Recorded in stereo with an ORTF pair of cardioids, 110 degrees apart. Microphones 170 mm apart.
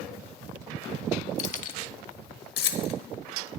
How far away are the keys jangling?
About 1.1 m.